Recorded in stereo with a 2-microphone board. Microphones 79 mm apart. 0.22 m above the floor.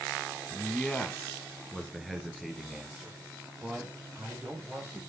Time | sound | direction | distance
0.5 | a man speaking | 20° left (ahead or behind) | 1.2 m